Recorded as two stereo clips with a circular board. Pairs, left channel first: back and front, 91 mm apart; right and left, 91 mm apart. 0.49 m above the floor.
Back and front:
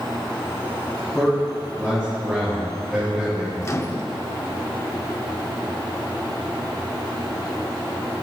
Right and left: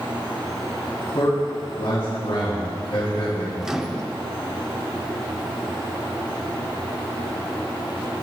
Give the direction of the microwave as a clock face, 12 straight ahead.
6 o'clock.